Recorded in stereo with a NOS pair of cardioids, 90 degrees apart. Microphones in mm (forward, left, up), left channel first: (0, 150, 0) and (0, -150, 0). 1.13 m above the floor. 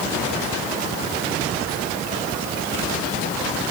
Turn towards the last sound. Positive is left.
No sound to turn to.